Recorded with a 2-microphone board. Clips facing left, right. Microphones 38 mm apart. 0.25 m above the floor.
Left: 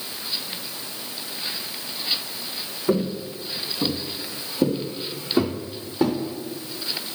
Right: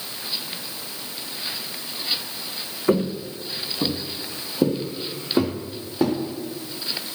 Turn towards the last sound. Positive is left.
turn(degrees=-5)  # may be behind; listen again after turning